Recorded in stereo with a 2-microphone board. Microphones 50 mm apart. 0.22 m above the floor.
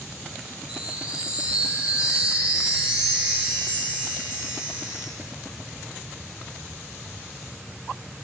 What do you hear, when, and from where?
0.7 s a chime: 20° right (ahead or behind), 1.4 m